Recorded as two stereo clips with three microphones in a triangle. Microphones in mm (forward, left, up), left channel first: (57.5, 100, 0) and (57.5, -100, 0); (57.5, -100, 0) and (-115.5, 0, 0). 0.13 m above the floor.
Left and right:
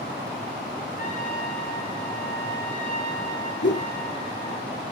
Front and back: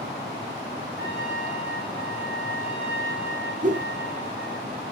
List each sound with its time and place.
1.0 s a trumpet: 140° left, 6 m
3.6 s a whoosh: 105° left, 1.6 m